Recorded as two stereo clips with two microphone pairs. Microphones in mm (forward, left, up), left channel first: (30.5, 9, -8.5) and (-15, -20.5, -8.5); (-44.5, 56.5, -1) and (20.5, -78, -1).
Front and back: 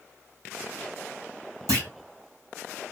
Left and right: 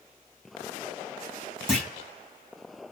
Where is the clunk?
150° right, 2.5 m.